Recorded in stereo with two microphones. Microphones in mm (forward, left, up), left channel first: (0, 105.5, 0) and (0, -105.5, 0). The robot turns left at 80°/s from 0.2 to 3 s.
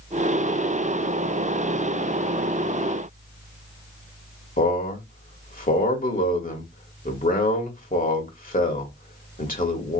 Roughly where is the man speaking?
Left.